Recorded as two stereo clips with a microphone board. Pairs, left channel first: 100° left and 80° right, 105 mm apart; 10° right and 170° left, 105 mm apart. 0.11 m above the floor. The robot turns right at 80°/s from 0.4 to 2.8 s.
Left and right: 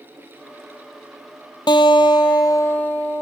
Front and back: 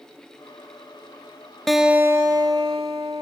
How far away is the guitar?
About 0.7 m.